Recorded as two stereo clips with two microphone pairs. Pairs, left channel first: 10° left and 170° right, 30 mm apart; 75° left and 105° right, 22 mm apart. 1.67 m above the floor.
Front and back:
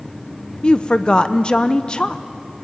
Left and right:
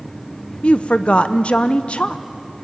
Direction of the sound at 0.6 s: 70° left.